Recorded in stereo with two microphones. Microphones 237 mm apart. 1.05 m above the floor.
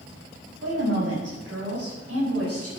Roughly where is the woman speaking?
Right.